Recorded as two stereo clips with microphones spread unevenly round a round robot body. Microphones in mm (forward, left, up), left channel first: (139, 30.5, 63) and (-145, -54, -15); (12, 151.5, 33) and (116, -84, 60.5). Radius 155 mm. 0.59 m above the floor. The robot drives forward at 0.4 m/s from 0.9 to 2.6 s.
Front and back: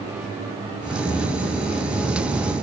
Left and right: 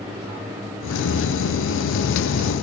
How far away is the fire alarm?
No fire alarm in this recording.